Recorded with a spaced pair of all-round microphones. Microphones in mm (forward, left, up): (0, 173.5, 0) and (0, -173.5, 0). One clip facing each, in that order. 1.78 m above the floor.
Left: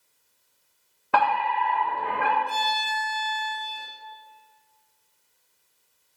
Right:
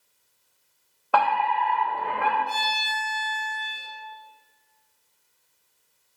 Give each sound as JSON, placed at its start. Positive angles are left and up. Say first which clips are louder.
{"t": 1.1, "sound": "a fire alarm", "louder": "right 1 dB", "side_deg": 30, "distance_m": 1.1}
{"t": 2.5, "sound": "a violin", "louder": "left 2 dB", "side_deg": 60, "distance_m": 1.6}